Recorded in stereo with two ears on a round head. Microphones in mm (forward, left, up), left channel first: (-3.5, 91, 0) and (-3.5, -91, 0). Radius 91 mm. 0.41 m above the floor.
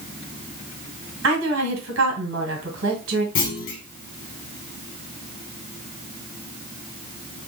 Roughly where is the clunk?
Left.